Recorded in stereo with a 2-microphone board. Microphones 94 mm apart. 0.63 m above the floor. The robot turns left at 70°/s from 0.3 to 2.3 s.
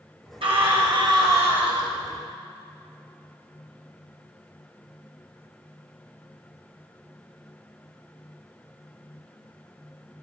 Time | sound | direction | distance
0.4 | a scream | 75° right | 3 m